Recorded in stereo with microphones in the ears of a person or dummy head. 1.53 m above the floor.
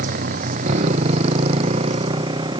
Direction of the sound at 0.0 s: 40° right (ahead or behind).